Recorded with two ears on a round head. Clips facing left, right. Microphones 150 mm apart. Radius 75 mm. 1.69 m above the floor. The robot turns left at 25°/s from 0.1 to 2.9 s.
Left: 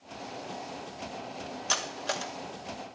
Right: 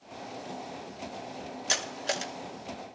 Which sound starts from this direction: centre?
Cutlery clinking, at 1.7 s.